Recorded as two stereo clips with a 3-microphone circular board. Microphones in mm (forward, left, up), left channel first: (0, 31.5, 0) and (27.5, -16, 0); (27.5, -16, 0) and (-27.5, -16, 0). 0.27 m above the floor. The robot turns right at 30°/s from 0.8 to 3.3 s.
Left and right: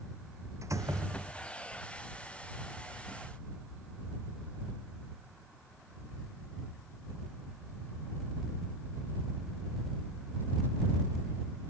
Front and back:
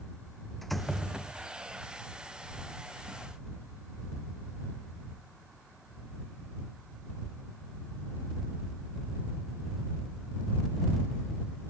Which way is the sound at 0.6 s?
90° right.